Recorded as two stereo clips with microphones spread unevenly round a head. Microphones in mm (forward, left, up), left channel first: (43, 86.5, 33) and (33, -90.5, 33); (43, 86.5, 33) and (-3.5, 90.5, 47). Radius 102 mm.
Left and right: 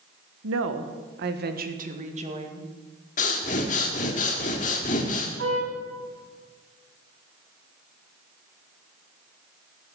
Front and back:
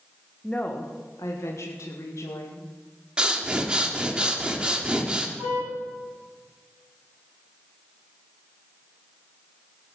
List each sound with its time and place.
0.4 s a woman speaking: 95° right, 1.6 m; by 2.7 s 35° right, 3 m
3.2 s breathing: 130° left, 1.7 m
5.4 s a car horn: 130° right, 7 m